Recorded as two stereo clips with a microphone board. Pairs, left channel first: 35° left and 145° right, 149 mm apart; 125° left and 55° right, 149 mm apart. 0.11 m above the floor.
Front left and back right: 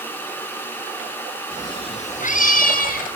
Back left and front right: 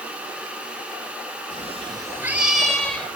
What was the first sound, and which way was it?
A cat meowing, 35° right.